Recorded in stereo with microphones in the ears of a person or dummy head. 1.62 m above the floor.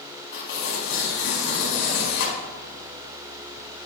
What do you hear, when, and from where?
0.3 s tearing paper: 65° left (ahead or behind), 4.5 m